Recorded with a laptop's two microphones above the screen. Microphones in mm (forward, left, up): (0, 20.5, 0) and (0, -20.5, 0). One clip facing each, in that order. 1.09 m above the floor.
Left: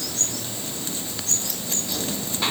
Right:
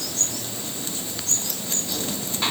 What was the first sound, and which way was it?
Only background noise.